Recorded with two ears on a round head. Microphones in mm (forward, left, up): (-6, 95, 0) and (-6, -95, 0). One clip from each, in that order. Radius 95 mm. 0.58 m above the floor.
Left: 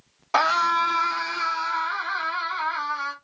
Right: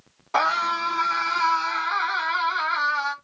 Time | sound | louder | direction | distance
0.3 | a scream | left 2 dB | 30° left (ahead or behind) | 0.9 m